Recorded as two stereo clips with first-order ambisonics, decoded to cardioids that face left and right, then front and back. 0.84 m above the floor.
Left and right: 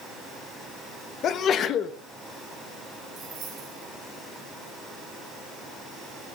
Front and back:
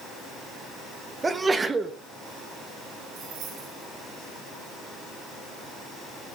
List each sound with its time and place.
1.2 s a sneeze: 110° left, 1.0 m
3.1 s keys jangling: 155° right, 9.5 m